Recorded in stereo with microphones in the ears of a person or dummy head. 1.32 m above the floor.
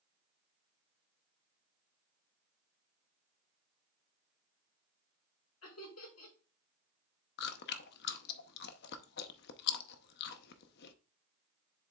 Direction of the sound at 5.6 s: 85° left.